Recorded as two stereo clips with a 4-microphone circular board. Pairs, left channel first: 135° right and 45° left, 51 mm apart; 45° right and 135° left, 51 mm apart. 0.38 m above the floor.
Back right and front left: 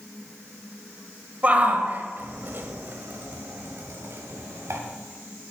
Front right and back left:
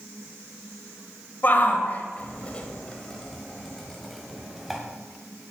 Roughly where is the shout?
Ahead.